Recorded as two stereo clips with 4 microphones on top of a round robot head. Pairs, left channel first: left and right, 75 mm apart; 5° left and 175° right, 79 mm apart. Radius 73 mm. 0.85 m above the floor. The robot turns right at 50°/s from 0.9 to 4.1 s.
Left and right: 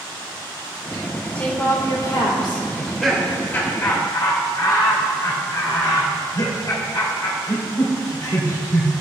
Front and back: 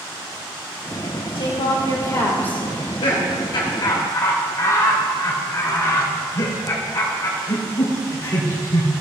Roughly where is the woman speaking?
Ahead.